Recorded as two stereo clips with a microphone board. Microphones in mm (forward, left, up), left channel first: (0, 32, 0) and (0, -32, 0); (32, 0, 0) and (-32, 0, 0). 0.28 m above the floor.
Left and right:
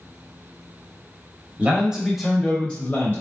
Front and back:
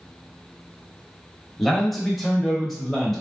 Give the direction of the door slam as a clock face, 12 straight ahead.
No door slam in this recording.